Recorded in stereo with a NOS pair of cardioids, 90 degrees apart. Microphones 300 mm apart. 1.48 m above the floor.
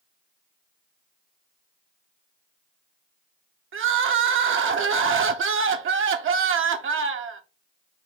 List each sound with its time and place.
3.7 s crying: 45° right, 0.7 m